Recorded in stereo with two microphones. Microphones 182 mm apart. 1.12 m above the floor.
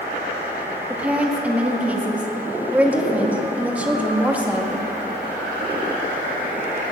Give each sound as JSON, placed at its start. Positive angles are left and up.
{"t": 0.9, "sound": "a woman speaking", "side_deg": -10, "distance_m": 1.8}